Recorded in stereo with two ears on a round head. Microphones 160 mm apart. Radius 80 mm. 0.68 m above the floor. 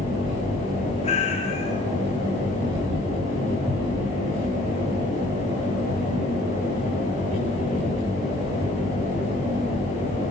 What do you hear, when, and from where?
1.0 s a cat meowing: 35° left (ahead or behind), 3 m